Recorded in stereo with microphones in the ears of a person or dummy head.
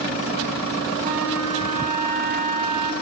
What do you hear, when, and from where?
1.0 s a flute: 35° right (ahead or behind), 1.5 m